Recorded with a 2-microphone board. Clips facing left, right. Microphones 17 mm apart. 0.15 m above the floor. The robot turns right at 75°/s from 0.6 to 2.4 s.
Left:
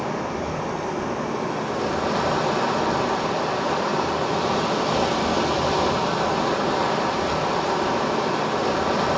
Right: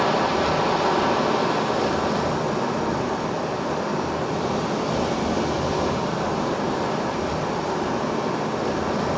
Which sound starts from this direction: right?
Running water, at 0.0 s.